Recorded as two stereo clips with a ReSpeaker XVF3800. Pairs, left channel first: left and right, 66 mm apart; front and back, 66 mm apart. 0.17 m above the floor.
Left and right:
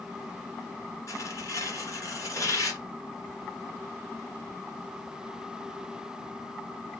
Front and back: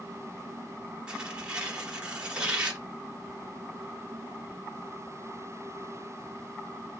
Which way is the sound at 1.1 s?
105° left.